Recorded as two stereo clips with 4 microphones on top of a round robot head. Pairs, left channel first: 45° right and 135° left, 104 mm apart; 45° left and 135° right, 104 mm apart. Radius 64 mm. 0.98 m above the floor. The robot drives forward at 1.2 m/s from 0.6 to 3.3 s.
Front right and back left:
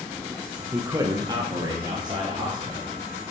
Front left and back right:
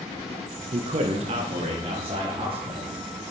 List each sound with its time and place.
0.7 s a man speaking: 150° right, 0.5 m; by 2.9 s 175° right, 3 m